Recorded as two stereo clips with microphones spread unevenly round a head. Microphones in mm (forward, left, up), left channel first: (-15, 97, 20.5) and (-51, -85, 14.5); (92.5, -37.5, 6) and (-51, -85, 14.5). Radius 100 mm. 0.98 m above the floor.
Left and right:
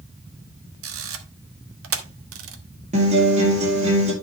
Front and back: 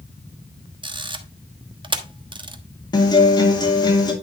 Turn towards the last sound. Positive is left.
turn(degrees=-45)